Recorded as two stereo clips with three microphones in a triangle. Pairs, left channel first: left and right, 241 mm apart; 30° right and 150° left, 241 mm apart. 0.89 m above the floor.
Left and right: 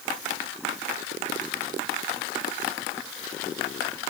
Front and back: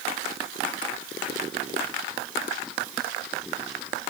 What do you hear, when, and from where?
Only background noise.